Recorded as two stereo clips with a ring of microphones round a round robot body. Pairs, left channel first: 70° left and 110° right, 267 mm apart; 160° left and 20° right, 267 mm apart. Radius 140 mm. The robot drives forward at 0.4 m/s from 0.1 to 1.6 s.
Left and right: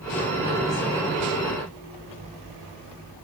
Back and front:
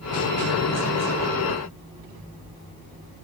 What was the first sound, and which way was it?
Only background noise.